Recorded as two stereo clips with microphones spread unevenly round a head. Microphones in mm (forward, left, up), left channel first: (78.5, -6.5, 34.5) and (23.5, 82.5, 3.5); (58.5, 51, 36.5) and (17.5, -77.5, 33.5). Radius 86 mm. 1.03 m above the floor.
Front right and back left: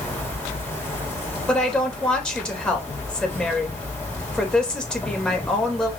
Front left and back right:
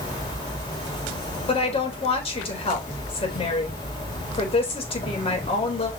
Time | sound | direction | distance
0.0 | an insect | 20° left | 4.5 m
1.5 | a woman speaking | 25° left | 4 m